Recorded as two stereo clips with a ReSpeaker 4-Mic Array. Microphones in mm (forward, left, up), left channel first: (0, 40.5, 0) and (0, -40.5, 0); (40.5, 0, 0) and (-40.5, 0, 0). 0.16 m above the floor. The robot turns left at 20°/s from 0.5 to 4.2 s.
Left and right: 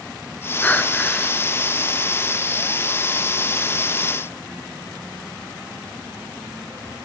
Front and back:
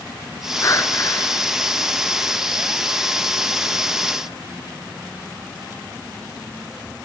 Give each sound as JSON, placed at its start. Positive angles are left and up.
{"t": 0.6, "sound": "breathing", "azimuth_deg": 30, "distance_m": 1.9}